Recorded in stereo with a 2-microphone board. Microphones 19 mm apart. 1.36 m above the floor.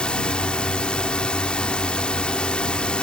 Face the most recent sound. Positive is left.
turn(degrees=75)  # may be behind; listen again after turning